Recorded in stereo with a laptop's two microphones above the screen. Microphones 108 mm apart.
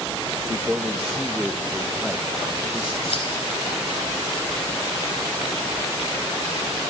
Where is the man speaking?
10° right (ahead or behind), 0.9 m.